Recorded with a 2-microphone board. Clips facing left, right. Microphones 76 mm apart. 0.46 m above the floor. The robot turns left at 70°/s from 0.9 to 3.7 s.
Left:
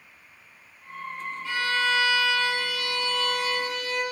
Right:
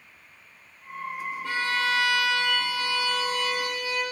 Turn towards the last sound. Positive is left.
turn(degrees=150)